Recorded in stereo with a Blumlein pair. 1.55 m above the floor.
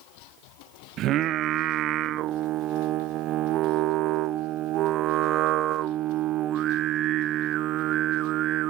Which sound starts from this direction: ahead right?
Singing, at 1.0 s.